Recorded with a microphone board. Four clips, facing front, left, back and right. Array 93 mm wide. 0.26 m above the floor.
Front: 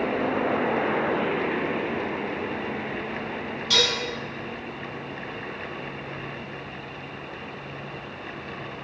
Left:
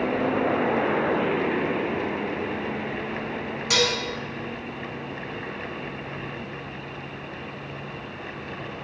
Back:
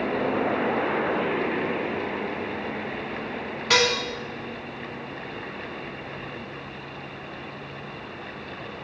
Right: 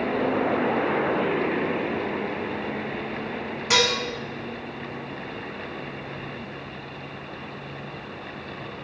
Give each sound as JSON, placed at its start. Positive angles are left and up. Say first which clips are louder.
{"t": 3.7, "sound": "dishes clattering", "louder": "right 2 dB, back 5 dB", "azimuth_deg": -150, "distance_m": 1.7}